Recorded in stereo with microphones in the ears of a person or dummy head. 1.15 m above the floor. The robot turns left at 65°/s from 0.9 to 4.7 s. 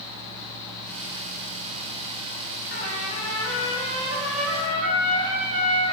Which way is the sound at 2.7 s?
50° left.